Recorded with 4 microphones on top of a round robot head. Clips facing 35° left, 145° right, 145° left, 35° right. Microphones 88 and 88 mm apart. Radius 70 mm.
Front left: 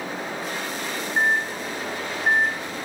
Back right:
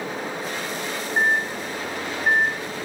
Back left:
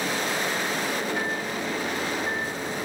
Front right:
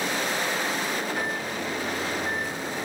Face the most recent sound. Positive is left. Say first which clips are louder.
# back right 1 dB, back left 1 dB
turn(degrees=-60)